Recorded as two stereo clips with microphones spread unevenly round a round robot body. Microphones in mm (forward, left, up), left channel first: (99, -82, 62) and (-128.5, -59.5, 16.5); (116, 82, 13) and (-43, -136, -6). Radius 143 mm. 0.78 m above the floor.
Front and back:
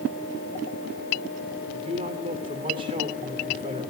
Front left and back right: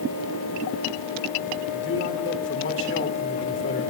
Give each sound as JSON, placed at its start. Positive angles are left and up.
{"t": 1.7, "sound": "a man speaking", "azimuth_deg": 105, "distance_m": 2.5}